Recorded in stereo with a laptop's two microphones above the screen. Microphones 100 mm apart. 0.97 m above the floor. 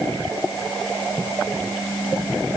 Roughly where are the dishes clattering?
I don't hear dishes clattering.